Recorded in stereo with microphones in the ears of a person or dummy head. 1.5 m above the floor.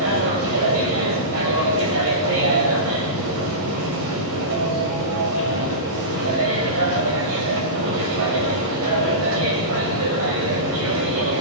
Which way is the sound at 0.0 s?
80° right.